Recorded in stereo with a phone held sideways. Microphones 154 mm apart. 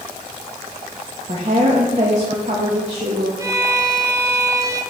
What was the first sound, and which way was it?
A woman speaking, 50° right (ahead or behind).